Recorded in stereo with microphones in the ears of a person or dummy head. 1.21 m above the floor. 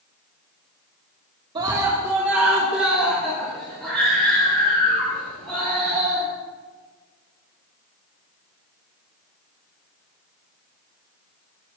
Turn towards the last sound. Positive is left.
turn(degrees=10)  # may be behind; listen again after turning